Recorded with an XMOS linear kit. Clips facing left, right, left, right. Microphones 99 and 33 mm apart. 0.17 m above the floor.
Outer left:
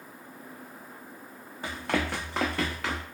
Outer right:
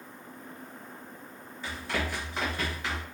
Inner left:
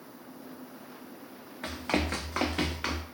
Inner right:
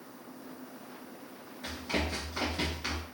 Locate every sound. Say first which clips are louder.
1.6 s running footsteps: outer left 4 dB, inner left 3 dB; 50° left (ahead or behind), 0.7 m; by 3.0 s 75° left (ahead or behind), 1.0 m